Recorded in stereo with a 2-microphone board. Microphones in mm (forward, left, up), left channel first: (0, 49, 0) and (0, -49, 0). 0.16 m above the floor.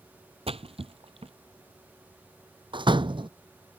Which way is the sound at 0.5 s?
80° right.